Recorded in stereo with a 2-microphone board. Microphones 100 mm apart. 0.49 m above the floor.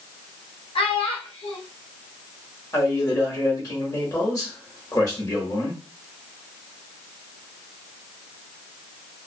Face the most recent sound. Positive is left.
turn(degrees=35)  # may be behind; listen again after turning